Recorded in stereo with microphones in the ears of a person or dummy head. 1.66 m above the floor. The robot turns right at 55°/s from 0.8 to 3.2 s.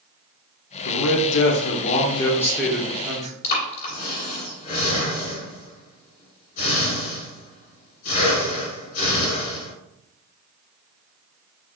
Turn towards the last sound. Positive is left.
turn(degrees=45)  # may be behind; listen again after turning